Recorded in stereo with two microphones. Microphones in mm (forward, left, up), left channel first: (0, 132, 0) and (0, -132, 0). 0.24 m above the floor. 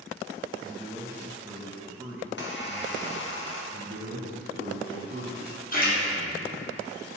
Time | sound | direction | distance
0.6 | a man speaking | 10° right (ahead or behind) | 1.1 m
2.2 | a squeak | 45° left (ahead or behind) | 1.9 m
3.7 | a man speaking | 55° right (ahead or behind) | 1.7 m
5.7 | a splash | 35° left (ahead or behind) | 2.5 m